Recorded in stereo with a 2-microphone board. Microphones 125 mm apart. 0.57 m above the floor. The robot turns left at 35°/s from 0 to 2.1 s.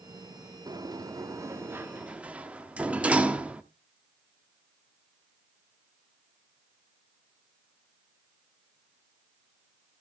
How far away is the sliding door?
About 0.9 m.